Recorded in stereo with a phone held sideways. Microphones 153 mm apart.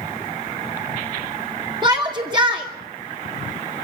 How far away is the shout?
About 2.5 m.